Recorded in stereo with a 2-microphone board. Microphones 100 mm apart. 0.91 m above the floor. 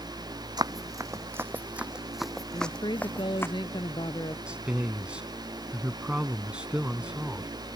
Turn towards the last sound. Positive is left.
turn(degrees=-10)  # may be behind; listen again after turning